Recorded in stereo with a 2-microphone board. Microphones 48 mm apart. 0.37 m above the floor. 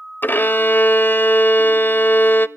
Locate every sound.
0.2 s a violin: 45° left (ahead or behind), 0.6 m